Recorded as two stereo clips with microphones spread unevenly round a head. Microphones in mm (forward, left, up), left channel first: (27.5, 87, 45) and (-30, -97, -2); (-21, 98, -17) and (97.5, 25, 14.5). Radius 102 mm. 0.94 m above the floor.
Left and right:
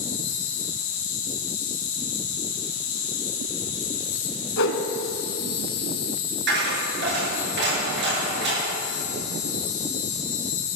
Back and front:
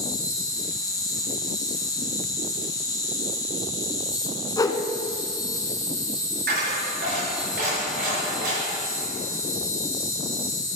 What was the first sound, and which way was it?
An insect, 80° left.